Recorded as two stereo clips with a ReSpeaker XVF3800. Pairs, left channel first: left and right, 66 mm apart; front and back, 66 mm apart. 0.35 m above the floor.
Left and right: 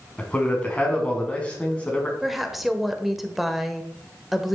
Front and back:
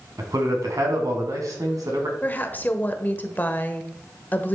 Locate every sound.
0.2 s a man speaking: 160° left, 3 m
2.2 s a woman speaking: 5° right, 1.2 m